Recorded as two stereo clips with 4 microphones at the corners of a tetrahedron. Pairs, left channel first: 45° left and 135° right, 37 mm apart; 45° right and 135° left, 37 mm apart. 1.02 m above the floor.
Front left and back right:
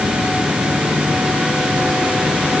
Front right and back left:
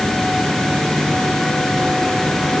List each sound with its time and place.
Only background noise.